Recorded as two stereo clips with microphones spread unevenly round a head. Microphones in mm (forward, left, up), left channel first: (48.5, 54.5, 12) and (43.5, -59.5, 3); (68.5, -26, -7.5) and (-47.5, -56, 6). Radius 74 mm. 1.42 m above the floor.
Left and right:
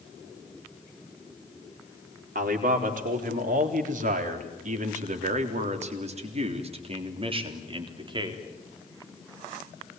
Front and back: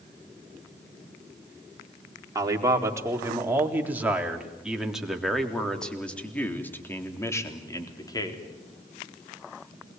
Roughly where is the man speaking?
Right.